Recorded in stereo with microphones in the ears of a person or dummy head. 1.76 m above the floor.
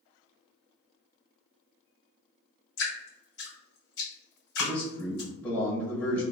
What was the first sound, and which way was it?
Dripping, 70° left (ahead or behind).